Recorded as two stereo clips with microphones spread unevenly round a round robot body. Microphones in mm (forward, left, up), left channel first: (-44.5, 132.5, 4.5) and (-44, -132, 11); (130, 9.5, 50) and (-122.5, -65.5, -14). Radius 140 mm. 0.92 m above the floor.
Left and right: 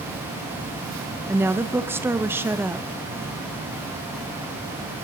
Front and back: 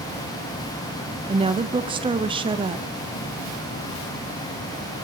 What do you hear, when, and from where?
1.3 s a woman speaking: 165° right, 0.8 m